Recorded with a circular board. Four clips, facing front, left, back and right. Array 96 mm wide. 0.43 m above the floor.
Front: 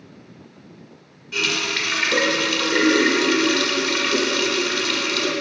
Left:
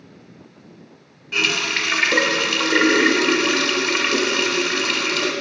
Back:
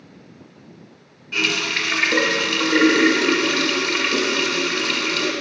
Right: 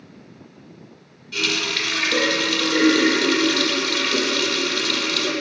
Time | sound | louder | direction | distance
1.3 | a running tap | left 2 dB, back 1 dB | 105° left | 0.9 m